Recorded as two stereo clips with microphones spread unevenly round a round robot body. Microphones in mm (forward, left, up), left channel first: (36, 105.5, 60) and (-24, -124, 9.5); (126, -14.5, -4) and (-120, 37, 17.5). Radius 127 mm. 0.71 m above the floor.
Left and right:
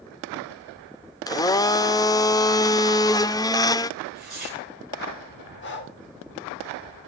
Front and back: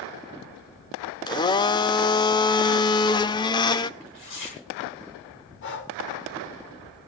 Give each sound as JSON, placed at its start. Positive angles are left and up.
{"t": 1.3, "sound": "a blender", "azimuth_deg": -5, "distance_m": 0.7}
{"t": 4.0, "sound": "tearing paper", "azimuth_deg": -20, "distance_m": 9.5}
{"t": 5.6, "sound": "breathing", "azimuth_deg": 30, "distance_m": 2.5}